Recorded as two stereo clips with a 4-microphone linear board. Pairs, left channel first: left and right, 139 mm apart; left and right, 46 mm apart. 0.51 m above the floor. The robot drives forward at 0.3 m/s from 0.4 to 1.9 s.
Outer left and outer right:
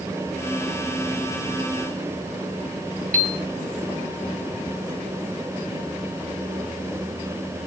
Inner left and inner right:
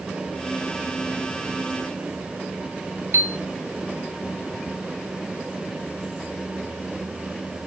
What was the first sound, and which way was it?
A piano, 70° right (ahead or behind).